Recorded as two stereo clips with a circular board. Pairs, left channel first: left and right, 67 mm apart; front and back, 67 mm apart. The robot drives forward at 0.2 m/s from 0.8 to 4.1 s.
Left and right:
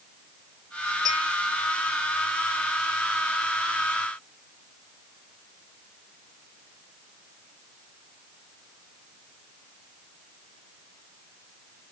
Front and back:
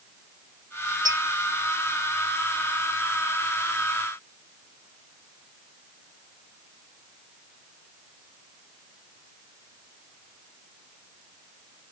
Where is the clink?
Straight behind, 3.5 m.